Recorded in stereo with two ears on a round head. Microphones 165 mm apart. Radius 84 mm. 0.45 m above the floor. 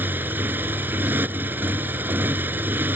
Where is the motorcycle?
10° right (ahead or behind).